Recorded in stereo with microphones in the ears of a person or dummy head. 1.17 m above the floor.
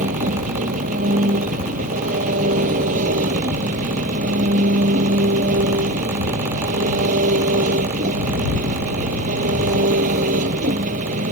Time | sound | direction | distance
0.0 | an engine running | 45° right (ahead or behind) | ?